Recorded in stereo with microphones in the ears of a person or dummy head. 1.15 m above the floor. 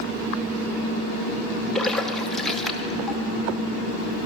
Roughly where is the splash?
Centre.